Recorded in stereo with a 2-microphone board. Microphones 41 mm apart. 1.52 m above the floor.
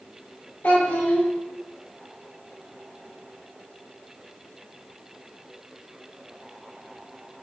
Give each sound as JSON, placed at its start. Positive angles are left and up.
{"t": 0.6, "sound": "a child speaking", "side_deg": 50, "distance_m": 2.0}